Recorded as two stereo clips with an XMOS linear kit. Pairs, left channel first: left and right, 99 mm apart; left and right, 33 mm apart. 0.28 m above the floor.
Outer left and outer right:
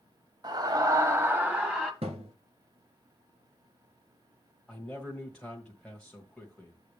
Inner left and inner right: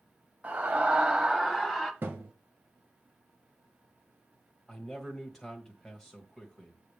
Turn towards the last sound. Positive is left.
turn(degrees=10)  # may be behind; listen again after turning